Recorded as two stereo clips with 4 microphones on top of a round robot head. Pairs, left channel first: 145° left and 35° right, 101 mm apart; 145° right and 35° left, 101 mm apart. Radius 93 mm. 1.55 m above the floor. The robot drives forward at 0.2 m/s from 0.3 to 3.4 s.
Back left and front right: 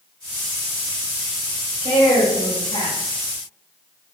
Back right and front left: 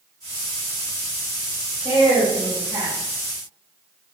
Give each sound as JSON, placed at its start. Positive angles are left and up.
{"t": 1.8, "sound": "a woman speaking", "azimuth_deg": 175, "distance_m": 1.8}